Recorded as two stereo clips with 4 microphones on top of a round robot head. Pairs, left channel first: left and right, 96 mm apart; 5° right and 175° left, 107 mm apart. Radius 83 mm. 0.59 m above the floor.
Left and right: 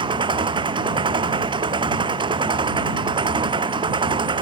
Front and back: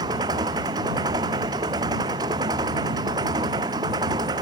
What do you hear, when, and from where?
0.0 s an engine running: 125° right